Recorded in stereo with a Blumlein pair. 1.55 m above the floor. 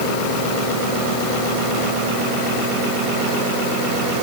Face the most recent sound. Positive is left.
No sound to turn to.